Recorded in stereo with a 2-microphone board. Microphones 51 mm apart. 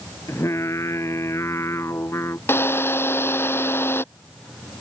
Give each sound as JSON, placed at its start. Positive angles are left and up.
{"t": 0.3, "sound": "singing", "side_deg": 65}
{"t": 2.5, "sound": "a drill", "side_deg": 55}